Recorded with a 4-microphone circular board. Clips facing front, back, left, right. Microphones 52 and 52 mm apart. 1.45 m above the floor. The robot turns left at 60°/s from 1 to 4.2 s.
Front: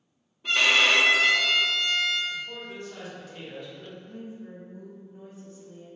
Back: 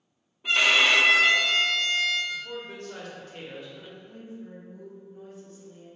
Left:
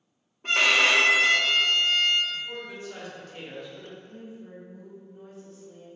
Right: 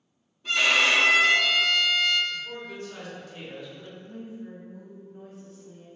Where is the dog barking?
No dog barking in this recording.